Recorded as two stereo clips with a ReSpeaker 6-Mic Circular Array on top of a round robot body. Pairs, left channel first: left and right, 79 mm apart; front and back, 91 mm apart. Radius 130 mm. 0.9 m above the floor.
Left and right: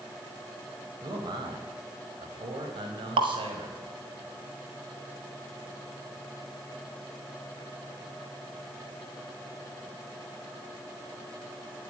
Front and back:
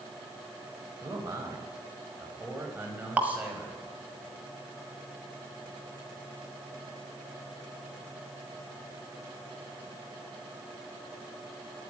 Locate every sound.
1.0 s a man speaking: 125° right, 5 m; by 4.2 s 100° right, 5.5 m
3.2 s dripping: 105° right, 1.2 m